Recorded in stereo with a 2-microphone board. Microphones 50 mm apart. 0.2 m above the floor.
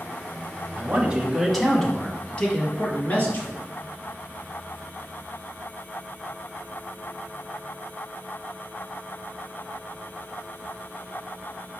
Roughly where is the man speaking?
Right.